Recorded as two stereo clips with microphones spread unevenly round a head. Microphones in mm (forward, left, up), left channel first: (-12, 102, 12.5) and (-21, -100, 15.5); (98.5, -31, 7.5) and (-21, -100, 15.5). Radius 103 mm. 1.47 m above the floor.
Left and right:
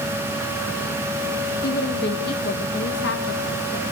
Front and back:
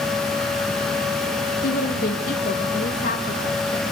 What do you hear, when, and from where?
1.6 s a woman speaking: 40° left, 1.6 m; by 3.8 s 55° left, 2.5 m